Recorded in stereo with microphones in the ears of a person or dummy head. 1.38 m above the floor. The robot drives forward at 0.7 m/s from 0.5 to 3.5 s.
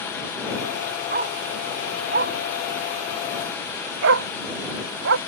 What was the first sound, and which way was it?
A dog barking, 45° right (ahead or behind).